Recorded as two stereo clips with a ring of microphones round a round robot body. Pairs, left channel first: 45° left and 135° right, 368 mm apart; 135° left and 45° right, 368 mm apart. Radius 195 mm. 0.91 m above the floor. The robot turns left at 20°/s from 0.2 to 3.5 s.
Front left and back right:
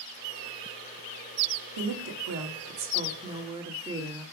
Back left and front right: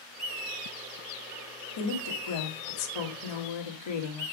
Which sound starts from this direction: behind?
A woman speaking, at 1.8 s.